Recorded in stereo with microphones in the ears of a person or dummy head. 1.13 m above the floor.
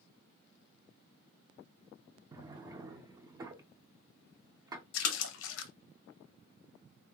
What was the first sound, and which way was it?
A drawer, 20° right (ahead or behind).